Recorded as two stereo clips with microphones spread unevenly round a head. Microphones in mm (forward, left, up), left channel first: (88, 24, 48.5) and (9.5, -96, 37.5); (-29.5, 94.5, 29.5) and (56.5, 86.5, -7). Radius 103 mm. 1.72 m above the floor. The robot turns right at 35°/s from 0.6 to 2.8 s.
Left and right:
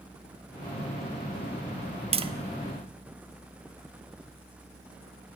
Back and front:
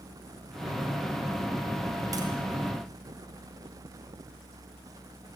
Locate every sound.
2.1 s tapping: 75° right, 1.4 m; by 2.3 s 70° right, 1.4 m